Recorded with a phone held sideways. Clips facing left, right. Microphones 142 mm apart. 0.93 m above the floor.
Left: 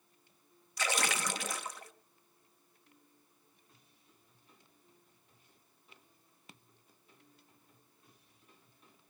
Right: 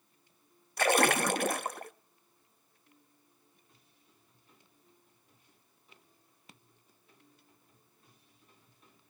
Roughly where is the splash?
Right.